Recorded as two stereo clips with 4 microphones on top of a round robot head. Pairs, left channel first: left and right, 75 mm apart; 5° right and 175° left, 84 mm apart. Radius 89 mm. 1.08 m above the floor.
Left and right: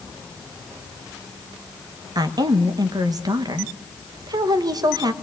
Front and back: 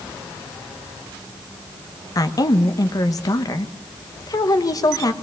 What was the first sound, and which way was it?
A woman speaking, 55° right.